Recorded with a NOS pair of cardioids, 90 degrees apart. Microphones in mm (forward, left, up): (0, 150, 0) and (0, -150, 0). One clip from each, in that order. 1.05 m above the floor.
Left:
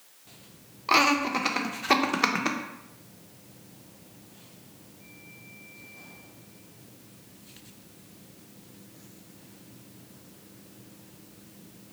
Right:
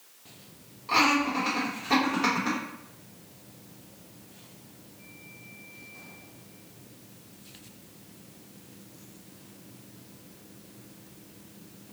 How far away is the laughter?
About 0.8 m.